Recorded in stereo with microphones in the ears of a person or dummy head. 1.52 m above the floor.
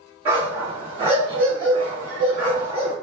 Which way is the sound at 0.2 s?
25° right (ahead or behind).